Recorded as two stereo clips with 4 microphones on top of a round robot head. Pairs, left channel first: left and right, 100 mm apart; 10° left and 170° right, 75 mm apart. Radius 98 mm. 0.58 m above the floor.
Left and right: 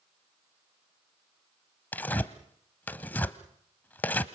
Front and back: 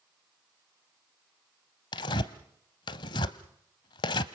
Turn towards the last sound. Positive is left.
turn(degrees=20)